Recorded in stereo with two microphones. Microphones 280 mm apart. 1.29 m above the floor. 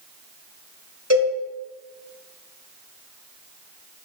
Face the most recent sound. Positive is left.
turn(degrees=-60)  # may be behind; listen again after turning